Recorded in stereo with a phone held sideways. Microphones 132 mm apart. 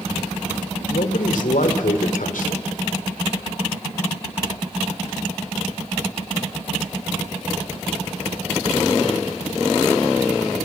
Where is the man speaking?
85° left, 2.5 m.